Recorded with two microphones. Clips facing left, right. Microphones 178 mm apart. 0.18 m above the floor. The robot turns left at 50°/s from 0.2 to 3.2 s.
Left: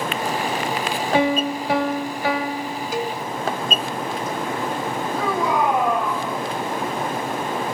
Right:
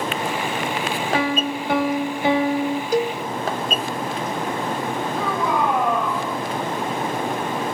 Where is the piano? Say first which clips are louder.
Left 5 dB; 30° left, 0.8 m; by 2.8 s 55° right, 0.8 m.